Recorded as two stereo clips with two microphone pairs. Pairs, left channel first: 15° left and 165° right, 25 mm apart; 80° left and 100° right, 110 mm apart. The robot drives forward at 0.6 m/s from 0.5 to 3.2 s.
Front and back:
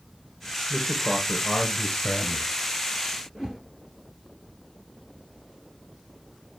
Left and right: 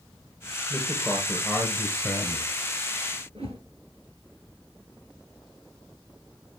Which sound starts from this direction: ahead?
A man speaking, at 0.7 s.